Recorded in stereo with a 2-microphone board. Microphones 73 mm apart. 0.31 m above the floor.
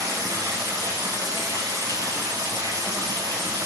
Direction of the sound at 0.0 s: 60° right (ahead or behind).